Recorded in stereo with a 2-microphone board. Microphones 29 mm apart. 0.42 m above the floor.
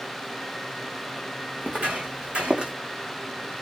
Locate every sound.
1.6 s footsteps: 60° right (ahead or behind), 1.2 m; by 2.7 s 30° right (ahead or behind), 1.0 m